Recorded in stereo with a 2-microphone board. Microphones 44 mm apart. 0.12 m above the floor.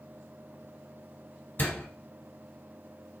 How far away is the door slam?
About 1.6 m.